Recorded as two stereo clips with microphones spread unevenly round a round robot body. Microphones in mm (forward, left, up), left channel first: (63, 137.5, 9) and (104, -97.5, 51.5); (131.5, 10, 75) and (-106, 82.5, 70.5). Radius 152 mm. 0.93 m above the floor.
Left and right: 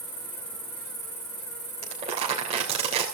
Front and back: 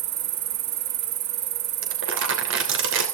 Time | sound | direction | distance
0.0 | an insect | straight behind | 1.2 m
1.8 | crumpling | 150° right | 3 m